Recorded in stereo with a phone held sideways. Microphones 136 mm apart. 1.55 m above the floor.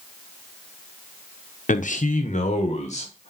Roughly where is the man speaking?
Left.